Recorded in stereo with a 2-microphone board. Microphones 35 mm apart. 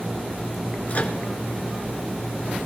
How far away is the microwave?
About 1.4 m.